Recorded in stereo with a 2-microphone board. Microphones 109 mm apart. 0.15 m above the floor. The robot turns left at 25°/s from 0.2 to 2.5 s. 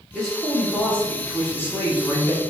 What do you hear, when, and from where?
0.1 s a man speaking: 5° left (ahead or behind), 1.2 m; by 2.4 s 25° left (ahead or behind), 1.2 m